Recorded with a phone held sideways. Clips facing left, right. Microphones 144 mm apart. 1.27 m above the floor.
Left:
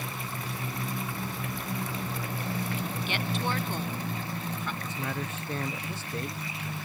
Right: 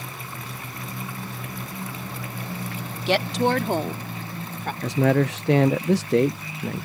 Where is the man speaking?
75° right (ahead or behind).